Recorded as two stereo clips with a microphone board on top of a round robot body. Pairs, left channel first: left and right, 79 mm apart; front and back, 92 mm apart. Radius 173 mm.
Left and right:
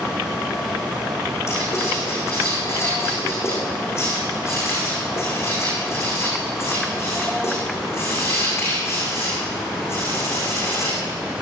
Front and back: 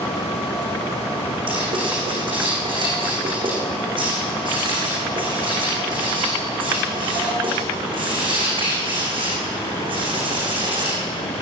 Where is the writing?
145° left, 8.5 m.